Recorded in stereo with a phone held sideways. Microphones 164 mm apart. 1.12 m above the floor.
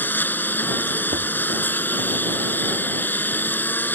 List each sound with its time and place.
0.0 s a lawn mower: 10° left (ahead or behind)
1.1 s knocking: 75° right (ahead or behind)